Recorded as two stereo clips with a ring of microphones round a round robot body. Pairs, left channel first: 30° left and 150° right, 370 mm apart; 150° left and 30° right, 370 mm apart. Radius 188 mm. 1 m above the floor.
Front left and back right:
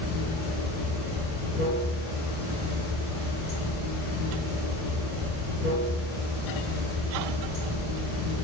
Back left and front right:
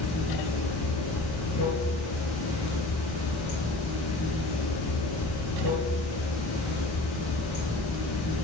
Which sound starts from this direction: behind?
Running water, at 0.0 s.